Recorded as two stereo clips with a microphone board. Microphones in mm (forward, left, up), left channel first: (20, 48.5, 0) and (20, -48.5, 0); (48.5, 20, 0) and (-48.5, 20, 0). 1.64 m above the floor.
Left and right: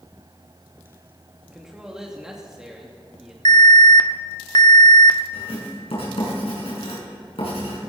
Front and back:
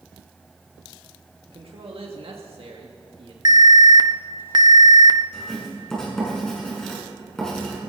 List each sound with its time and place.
1.5 s a man speaking: 175° right, 2.5 m
3.5 s an alarm: 130° left, 0.8 m
5.3 s writing: 85° left, 7 m